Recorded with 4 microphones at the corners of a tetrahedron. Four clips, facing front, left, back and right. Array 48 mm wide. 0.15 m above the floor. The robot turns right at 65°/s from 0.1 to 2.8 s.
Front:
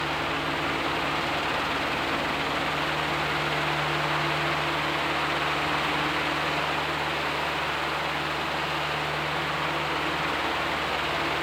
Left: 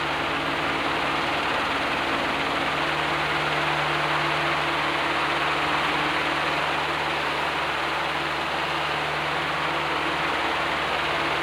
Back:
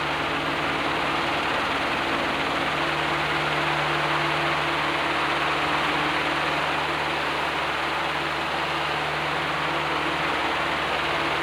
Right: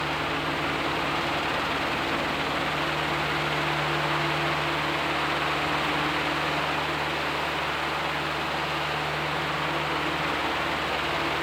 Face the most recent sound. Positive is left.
No sound to turn to.